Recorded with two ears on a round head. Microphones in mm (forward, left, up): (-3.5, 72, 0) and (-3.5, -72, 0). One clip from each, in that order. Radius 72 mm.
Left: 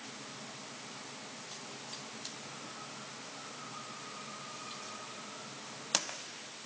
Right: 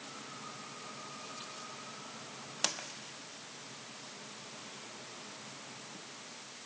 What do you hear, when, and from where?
Only background noise.